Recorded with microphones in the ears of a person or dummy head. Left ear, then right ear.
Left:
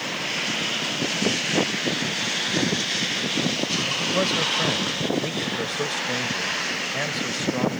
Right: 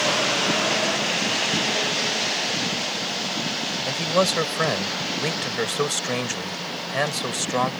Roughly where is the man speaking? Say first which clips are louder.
Right 4 dB; right.